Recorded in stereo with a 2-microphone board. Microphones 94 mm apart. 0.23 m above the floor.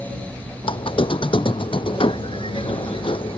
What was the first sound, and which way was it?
A squeak, 70° left (ahead or behind).